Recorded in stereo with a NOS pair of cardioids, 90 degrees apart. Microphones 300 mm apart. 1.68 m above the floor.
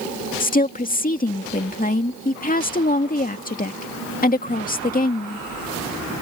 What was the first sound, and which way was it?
A woman speaking, 25° left.